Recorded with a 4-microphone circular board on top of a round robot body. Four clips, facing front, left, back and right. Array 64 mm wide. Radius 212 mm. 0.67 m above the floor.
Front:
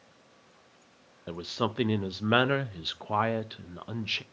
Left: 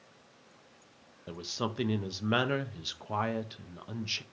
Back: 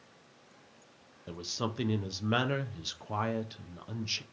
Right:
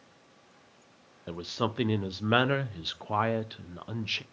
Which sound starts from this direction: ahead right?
A man speaking, at 1.3 s.